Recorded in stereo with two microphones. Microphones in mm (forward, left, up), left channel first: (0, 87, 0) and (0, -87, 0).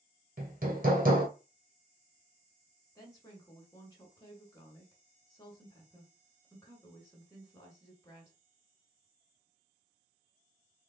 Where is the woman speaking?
20° left (ahead or behind), 1.1 m.